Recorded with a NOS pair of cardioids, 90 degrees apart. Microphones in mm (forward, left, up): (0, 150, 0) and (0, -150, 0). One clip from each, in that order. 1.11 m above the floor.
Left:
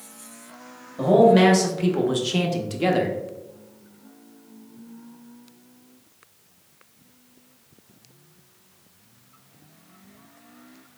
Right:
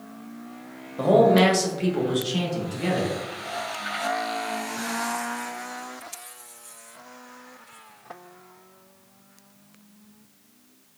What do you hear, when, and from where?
1.0 s a man speaking: 15° right, 1.1 m; by 3.2 s 50° left, 1.2 m